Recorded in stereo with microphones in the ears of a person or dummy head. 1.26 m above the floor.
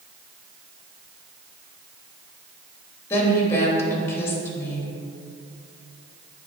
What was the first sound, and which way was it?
A woman speaking, 15° left (ahead or behind).